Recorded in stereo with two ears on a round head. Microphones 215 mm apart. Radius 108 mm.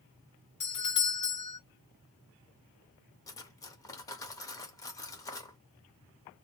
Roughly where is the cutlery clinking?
Centre.